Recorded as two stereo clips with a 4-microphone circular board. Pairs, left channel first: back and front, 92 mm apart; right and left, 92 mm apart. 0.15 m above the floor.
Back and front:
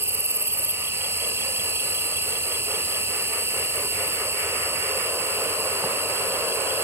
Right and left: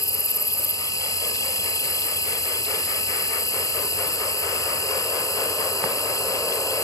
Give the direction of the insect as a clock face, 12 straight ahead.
2 o'clock.